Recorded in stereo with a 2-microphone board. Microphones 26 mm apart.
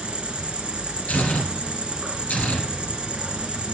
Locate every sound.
0.0 s an insect: 35° right (ahead or behind), 1.8 m
1.1 s tearing paper: 70° left (ahead or behind), 2.5 m